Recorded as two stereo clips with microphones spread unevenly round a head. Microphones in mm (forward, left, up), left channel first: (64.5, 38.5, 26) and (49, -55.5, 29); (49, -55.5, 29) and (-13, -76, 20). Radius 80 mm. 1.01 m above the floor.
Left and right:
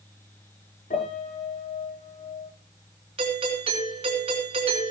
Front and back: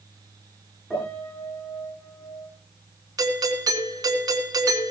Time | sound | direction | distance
0.9 | a piano | 105° left | 9.5 m
3.2 | a doorbell | 145° right | 4 m